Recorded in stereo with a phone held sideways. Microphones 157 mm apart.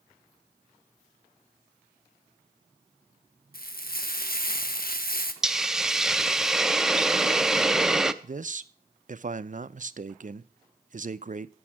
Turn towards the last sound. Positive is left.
turn(degrees=-55)  # may be behind; listen again after turning